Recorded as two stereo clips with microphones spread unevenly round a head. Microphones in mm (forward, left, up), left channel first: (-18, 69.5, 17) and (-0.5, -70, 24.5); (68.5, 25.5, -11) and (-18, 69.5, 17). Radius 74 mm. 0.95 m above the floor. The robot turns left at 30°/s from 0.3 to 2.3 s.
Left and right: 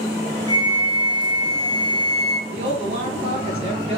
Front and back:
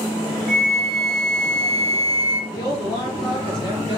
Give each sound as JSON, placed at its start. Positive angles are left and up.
{"t": 0.5, "sound": "a flute", "azimuth_deg": 160, "distance_m": 0.6}
{"t": 2.5, "sound": "a woman speaking", "azimuth_deg": -35, "distance_m": 1.4}